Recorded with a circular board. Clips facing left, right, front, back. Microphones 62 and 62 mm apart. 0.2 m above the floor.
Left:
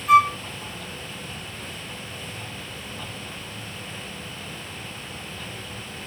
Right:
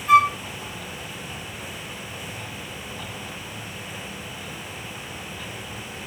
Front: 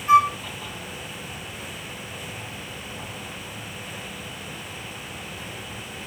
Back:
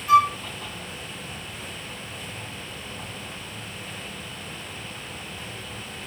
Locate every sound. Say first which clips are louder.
0.1 s a flute: even, front 1 dB; 5° right, 1.5 m